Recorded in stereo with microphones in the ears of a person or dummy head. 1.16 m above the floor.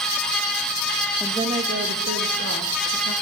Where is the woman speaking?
Centre (ahead or behind), 0.6 m; by 3.1 s 65° right (ahead or behind), 1.7 m.